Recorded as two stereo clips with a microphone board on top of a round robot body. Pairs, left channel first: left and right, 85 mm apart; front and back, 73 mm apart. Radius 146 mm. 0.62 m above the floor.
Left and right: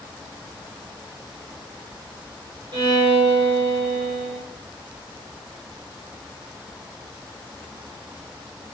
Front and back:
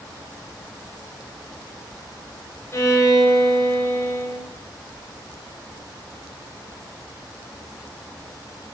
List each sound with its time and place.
2.7 s a violin: 50° right, 4 m